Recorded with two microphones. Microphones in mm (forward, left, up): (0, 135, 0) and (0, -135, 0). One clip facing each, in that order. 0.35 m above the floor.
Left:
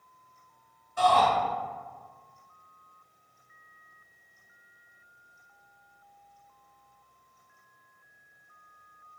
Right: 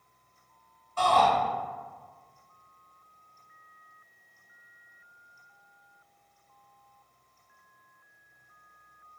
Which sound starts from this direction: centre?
A shout, at 1.0 s.